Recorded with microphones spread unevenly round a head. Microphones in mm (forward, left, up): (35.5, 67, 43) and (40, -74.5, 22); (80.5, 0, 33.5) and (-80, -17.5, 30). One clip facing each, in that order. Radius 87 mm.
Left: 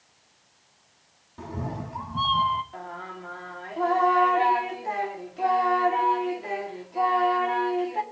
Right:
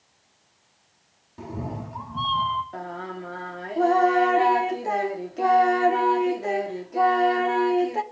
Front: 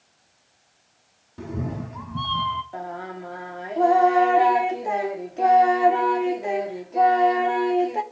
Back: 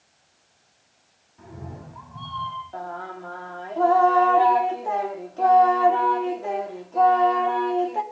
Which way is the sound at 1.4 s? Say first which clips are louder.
Right 1 dB, front 10 dB; 5° right.